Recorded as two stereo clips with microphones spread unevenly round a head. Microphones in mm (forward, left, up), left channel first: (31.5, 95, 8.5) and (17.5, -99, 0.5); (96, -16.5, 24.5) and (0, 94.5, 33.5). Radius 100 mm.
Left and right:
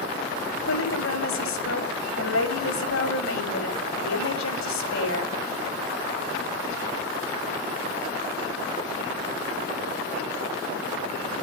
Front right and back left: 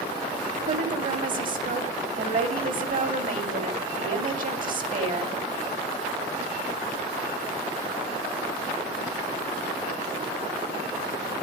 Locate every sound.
0.4 s a woman speaking: 110° left, 6.5 m